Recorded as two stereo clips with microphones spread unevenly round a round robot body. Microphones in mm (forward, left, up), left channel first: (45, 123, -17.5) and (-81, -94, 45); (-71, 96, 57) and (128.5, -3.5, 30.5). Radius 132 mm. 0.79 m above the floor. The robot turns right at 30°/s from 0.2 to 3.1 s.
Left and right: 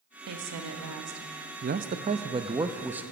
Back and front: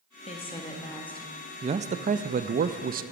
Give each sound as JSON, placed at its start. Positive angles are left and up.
{"t": 0.3, "sound": "a woman speaking", "azimuth_deg": -145, "distance_m": 1.4}
{"t": 1.6, "sound": "a man speaking", "azimuth_deg": -65, "distance_m": 0.5}